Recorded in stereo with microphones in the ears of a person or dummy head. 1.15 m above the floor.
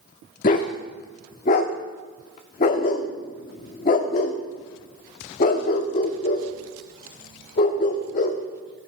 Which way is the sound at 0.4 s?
30° left (ahead or behind).